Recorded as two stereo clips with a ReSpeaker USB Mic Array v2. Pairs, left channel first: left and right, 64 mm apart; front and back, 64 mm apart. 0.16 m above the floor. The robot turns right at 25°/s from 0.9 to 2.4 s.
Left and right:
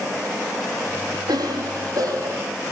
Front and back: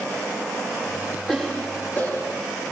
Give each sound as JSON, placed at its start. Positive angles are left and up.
{"t": 1.3, "sound": "a cough", "azimuth_deg": -80, "distance_m": 6.0}